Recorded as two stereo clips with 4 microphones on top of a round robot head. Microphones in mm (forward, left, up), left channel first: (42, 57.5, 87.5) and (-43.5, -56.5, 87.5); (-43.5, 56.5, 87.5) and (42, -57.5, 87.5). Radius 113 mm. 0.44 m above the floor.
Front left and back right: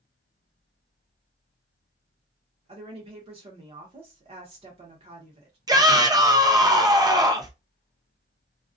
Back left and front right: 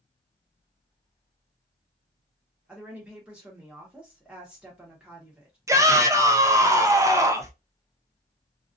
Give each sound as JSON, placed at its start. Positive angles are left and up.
{"t": 2.7, "sound": "a woman speaking", "azimuth_deg": -130, "distance_m": 0.9}
{"t": 5.7, "sound": "a shout", "azimuth_deg": -95, "distance_m": 0.8}